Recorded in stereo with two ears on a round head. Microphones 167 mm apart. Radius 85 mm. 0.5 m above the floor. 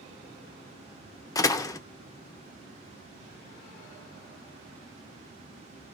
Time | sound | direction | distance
1.4 | a door slam | 20° left (ahead or behind) | 0.5 m